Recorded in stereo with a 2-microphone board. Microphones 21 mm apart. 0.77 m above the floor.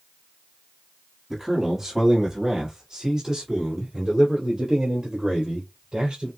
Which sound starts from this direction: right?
A man speaking, at 1.3 s.